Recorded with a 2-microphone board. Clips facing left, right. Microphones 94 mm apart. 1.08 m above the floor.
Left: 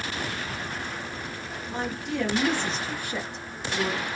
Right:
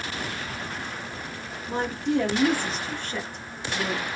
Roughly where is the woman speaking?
Right.